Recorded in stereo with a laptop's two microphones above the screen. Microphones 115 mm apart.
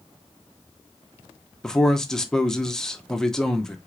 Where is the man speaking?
5° left (ahead or behind), 0.9 m.